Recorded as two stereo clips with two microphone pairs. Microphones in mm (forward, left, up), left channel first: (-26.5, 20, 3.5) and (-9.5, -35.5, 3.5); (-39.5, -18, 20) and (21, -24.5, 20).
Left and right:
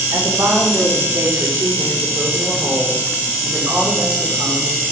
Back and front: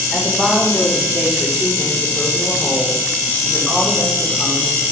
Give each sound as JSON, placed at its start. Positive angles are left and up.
{"t": 0.1, "sound": "a woman speaking", "azimuth_deg": -90, "distance_m": 7.5}